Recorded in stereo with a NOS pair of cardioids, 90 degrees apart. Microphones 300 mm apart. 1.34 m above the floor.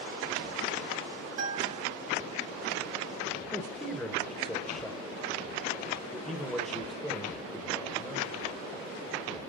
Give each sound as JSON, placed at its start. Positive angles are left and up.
{"t": 1.4, "sound": "a guitar", "azimuth_deg": -60, "distance_m": 3.5}
{"t": 3.5, "sound": "a man speaking", "azimuth_deg": 0, "distance_m": 1.1}